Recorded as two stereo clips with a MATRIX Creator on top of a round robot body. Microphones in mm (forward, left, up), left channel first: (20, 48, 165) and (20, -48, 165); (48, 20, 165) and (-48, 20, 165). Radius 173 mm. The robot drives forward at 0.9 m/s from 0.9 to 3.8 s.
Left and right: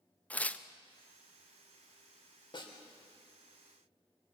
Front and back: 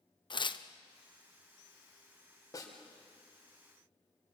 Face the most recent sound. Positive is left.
turn(degrees=75)